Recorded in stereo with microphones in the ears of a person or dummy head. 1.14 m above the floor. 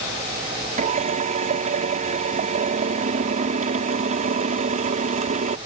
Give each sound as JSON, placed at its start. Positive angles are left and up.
{"t": 0.8, "sound": "a drill", "side_deg": -35}